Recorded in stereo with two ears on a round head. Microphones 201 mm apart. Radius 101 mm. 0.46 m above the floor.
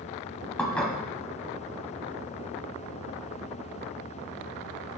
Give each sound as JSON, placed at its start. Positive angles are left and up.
{"t": 0.6, "sound": "dishes clattering", "side_deg": 5, "distance_m": 1.9}